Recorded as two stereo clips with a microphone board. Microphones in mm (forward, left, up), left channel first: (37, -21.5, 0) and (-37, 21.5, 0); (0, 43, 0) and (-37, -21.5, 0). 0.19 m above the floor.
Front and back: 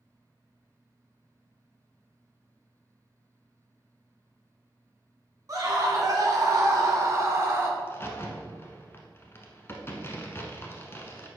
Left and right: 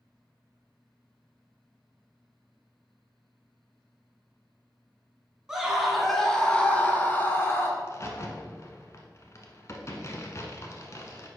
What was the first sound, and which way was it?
A scream, 165° left.